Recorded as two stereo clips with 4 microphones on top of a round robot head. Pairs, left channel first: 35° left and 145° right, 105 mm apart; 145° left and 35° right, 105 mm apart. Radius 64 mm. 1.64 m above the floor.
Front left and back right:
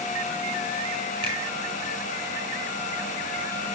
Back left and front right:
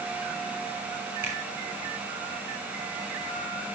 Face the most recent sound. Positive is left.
turn(degrees=-100)